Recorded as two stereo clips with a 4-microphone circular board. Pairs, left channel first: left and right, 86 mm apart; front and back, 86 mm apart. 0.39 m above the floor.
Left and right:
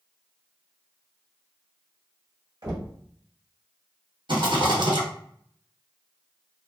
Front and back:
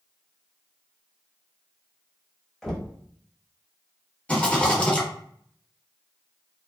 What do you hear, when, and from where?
2.6 s knocking: 85° right, 0.9 m
4.3 s a rattle: 75° right, 1.3 m